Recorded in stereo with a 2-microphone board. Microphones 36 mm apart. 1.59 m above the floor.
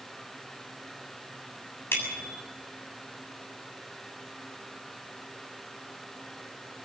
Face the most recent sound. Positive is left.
turn(degrees=75)  # may be behind; listen again after turning